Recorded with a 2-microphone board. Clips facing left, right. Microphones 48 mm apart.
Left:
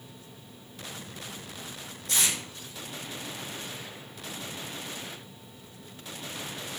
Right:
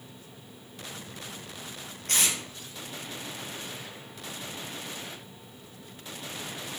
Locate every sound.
2.1 s tape being pulled: 50° right (ahead or behind), 0.8 m